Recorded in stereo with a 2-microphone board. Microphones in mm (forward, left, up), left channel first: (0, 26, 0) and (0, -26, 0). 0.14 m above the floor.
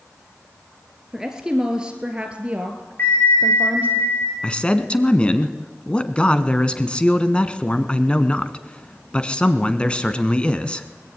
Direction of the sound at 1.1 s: 10° right (ahead or behind).